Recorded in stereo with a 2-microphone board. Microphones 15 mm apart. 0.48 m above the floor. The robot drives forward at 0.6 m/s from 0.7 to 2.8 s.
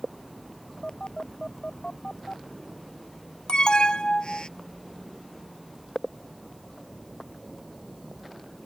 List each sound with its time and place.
0.8 s a phone buzzing: 80° left; by 4.5 s 85° left
3.5 s an alarm: 70° left (ahead or behind)